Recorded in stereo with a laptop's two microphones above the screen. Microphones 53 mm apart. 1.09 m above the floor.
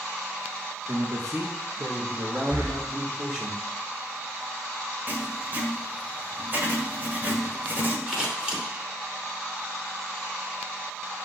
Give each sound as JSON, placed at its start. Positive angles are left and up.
{"t": 0.9, "sound": "a man speaking", "side_deg": -65, "distance_m": 1.6}
{"t": 2.5, "sound": "breathing", "side_deg": -35, "distance_m": 1.7}
{"t": 5.1, "sound": "writing", "side_deg": -35, "distance_m": 1.8}
{"t": 8.1, "sound": "scissors", "side_deg": -15, "distance_m": 2.5}